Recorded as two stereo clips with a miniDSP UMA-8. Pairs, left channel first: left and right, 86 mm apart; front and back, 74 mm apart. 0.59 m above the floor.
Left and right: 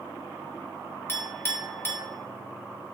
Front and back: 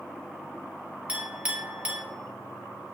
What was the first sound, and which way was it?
A clink, 125° left.